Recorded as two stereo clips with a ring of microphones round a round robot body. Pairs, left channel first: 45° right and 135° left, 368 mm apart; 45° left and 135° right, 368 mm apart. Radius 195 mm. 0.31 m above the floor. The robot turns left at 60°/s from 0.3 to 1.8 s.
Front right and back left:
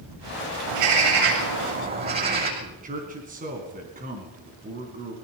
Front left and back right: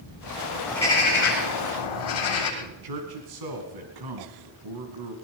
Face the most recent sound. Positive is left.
turn(degrees=-155)